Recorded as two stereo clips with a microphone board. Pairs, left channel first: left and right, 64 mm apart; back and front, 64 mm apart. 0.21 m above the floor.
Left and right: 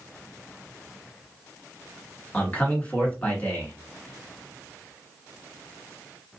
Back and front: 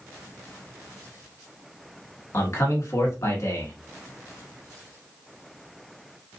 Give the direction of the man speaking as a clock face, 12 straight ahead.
7 o'clock.